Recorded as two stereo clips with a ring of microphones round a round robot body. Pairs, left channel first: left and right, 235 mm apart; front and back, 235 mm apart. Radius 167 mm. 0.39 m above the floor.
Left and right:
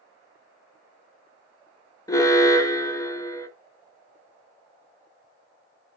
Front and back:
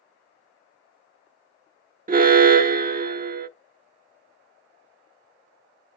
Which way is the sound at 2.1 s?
160° left.